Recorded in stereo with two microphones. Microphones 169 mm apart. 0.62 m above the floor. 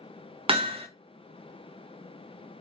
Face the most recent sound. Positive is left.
turn(degrees=-30)  # may be behind; listen again after turning